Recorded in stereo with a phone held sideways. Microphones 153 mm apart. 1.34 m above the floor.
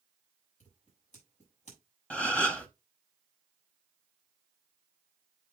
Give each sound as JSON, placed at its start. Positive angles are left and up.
{"t": 0.6, "sound": "scissors", "side_deg": 50, "distance_m": 5.0}
{"t": 2.1, "sound": "a gasp", "side_deg": 10, "distance_m": 0.9}